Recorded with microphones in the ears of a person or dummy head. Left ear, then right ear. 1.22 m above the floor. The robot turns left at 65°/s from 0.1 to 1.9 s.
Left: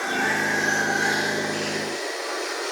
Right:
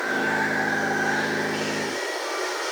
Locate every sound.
0.0 s running water: 130° left, 2.5 m; by 2.7 s 15° left, 2.5 m